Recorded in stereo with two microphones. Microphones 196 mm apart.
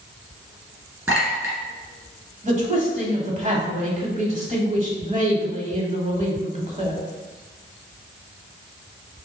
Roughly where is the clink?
Centre.